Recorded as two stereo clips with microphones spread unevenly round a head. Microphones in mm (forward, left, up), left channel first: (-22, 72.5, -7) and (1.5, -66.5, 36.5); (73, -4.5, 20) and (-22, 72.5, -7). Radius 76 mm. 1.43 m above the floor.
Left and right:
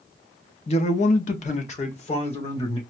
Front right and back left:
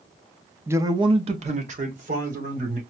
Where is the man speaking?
75° left, 0.7 m; by 2.8 s 145° left, 2 m.